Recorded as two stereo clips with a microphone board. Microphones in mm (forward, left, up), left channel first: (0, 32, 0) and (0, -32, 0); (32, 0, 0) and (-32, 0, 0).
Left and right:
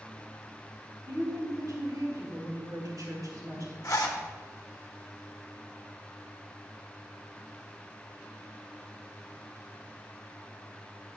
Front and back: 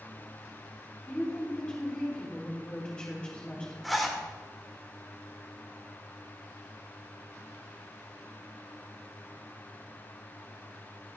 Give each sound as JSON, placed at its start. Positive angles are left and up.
{"t": 1.1, "sound": "a woman speaking", "azimuth_deg": -75, "distance_m": 3.0}
{"t": 3.8, "sound": "a zipper", "azimuth_deg": 90, "distance_m": 1.5}